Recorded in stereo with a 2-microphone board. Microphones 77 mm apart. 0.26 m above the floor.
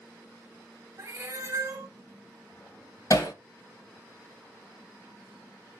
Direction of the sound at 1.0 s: 35° right (ahead or behind).